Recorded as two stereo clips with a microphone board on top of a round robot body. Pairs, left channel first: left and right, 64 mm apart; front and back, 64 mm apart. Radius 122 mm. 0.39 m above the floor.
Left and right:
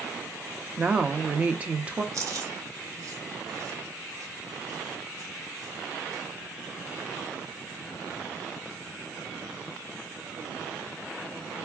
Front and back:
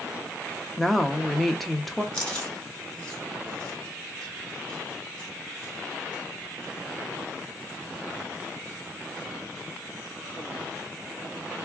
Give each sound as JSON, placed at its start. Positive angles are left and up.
{"t": 0.8, "sound": "a woman speaking", "azimuth_deg": -85, "distance_m": 0.8}
{"t": 2.1, "sound": "chewing", "azimuth_deg": -75, "distance_m": 1.8}